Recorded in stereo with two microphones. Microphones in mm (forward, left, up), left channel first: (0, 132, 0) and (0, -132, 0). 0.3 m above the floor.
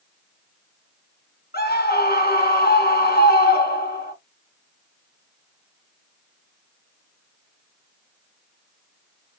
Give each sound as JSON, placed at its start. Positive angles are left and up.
{"t": 1.5, "sound": "a scream", "side_deg": 40, "distance_m": 3.5}